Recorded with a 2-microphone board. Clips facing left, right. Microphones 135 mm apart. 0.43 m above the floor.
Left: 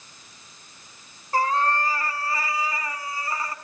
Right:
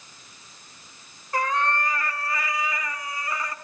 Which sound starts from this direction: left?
A cat meowing, at 1.3 s.